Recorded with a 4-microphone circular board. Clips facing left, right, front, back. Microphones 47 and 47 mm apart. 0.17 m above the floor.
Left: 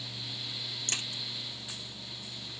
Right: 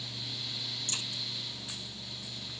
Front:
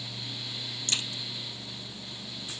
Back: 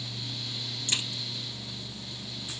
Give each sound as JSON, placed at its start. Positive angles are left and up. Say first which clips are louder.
{"t": 0.9, "sound": "a crack", "louder": "left 4 dB, back 1 dB", "azimuth_deg": 110, "distance_m": 1.3}